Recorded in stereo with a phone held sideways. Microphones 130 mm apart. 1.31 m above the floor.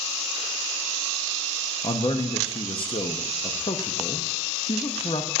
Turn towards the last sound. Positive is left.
turn(degrees=45)  # may be behind; listen again after turning